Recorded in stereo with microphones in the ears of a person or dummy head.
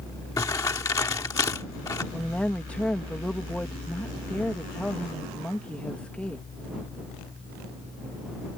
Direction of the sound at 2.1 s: 5° left (ahead or behind).